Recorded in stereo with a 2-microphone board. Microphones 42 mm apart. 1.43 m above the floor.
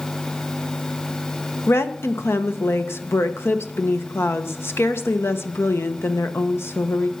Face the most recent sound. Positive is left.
turn(degrees=90)